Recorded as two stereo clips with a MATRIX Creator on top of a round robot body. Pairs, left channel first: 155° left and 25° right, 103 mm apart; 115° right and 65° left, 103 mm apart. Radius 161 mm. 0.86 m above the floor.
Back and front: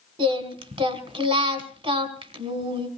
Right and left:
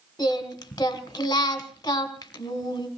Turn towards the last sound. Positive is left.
turn(degrees=-55)